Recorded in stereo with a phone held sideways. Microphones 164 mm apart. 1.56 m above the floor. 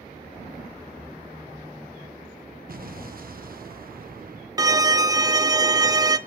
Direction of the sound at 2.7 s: 60° right (ahead or behind).